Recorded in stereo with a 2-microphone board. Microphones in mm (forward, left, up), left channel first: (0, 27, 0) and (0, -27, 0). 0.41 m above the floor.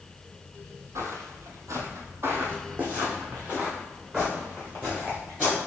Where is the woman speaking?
No woman speaking in this recording.